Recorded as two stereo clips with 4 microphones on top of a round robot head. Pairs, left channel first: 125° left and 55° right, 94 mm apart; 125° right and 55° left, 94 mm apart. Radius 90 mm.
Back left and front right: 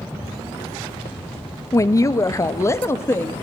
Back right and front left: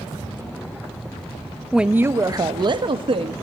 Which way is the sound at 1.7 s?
140° left.